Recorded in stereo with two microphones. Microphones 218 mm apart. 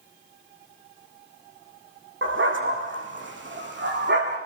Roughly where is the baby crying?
I don't hear a baby crying.